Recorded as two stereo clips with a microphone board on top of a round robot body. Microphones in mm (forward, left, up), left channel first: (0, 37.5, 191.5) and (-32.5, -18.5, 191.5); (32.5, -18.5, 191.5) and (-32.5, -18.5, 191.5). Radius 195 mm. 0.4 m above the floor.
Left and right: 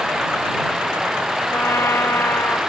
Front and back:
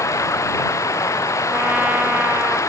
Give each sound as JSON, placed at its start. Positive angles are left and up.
{"t": 0.0, "sound": "running water", "azimuth_deg": -35}
{"t": 1.5, "sound": "a trumpet", "azimuth_deg": 110}